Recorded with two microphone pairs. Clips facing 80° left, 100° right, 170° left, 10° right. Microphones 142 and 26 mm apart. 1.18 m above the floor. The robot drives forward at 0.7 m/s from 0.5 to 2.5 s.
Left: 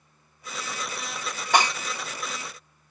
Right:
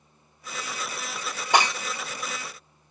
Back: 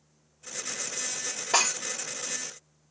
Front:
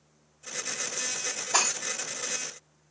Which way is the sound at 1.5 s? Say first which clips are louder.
Even, back 2 dB; 170° right.